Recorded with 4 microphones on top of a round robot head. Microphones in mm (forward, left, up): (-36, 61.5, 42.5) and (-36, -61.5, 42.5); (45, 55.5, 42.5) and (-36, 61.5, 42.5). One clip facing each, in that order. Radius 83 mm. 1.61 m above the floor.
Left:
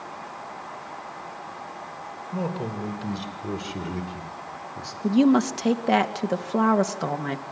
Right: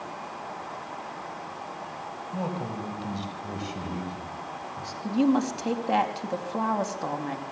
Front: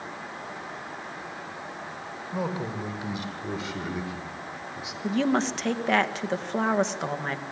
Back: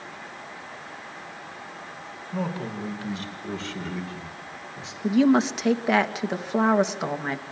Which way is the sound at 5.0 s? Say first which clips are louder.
Left 5 dB, back 5 dB; 95° left.